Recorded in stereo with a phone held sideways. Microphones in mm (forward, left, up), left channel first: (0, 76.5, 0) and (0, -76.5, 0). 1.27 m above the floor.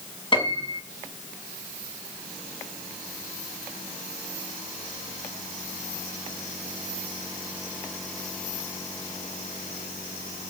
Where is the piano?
35° left (ahead or behind), 6 m.